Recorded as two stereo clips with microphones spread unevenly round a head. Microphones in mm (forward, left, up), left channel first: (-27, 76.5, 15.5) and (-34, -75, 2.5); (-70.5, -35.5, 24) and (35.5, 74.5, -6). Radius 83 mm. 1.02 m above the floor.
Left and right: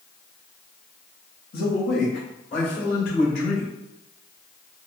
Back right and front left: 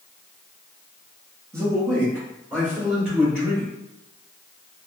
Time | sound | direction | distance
1.5 | a man speaking | 115° left | 1.0 m